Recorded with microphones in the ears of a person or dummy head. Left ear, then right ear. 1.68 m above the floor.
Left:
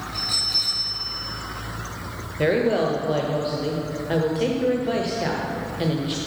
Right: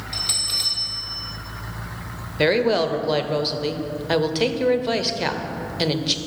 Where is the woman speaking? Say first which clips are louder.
Right 2 dB; 35° right (ahead or behind), 0.7 m.